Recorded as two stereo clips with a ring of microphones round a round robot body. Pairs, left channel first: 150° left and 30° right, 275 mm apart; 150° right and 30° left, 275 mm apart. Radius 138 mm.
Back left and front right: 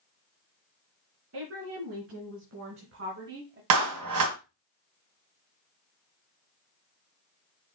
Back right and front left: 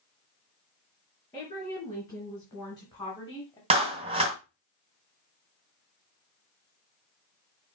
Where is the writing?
No writing in this recording.